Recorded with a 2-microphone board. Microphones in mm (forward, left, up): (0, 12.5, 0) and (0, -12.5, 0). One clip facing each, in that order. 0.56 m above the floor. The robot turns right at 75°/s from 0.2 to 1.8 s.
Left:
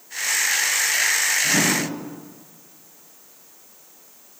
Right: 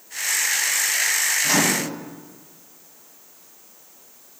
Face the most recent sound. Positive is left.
turn(degrees=-30)  # may be behind; listen again after turning